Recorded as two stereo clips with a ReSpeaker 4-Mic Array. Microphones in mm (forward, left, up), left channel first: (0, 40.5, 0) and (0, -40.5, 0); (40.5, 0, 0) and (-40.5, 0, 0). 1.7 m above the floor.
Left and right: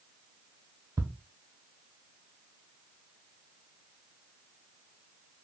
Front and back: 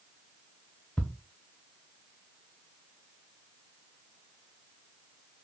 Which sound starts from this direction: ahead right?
Ticking, at 1.0 s.